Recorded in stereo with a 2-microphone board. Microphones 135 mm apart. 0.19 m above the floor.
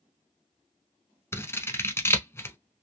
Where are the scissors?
20° left (ahead or behind), 0.8 m.